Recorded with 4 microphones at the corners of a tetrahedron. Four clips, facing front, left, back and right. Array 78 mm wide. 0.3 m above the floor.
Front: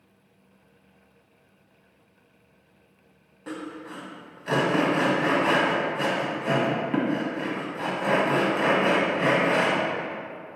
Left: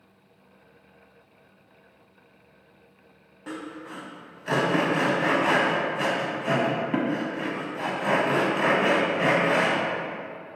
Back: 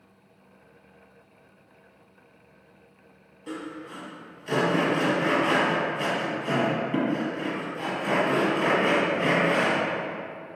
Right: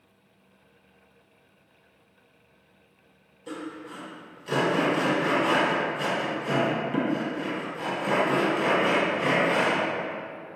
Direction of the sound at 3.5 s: 50° left.